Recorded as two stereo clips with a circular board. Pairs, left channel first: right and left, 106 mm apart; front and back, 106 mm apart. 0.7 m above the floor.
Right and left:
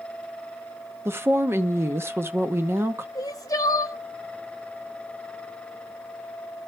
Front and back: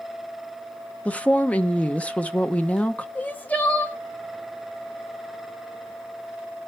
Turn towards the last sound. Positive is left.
turn(degrees=-65)